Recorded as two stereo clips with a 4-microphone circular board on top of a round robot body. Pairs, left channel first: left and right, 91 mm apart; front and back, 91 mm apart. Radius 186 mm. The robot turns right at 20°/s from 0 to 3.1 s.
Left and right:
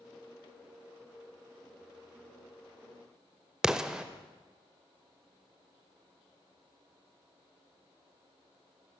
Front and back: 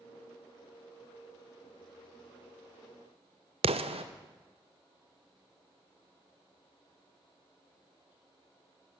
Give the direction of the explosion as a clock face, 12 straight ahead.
6 o'clock.